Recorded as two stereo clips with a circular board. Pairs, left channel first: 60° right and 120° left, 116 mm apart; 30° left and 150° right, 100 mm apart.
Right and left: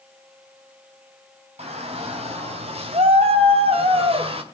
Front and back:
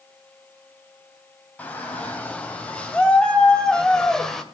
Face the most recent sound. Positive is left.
turn(degrees=115)